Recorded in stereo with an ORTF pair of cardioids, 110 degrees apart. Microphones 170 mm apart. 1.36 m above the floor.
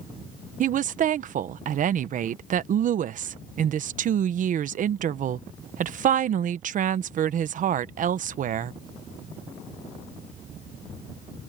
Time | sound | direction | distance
0.6 | a woman speaking | 50° right | ?